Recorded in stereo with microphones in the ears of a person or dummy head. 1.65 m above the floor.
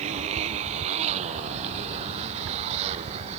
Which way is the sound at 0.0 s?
40° right (ahead or behind).